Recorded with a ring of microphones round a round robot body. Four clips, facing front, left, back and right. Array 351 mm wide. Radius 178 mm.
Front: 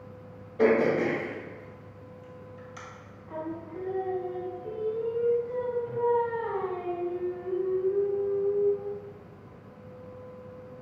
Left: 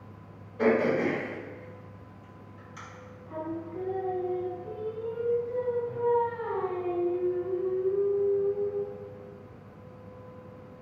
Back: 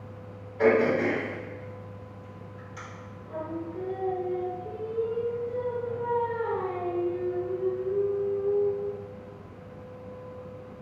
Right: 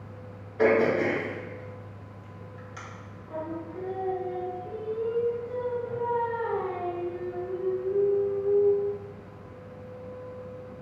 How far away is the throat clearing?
About 1.5 m.